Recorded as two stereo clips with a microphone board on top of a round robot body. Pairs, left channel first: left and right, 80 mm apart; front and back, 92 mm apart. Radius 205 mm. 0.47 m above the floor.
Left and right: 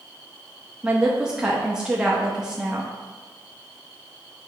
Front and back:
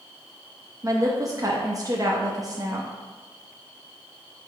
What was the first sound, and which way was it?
A woman speaking, 165° right.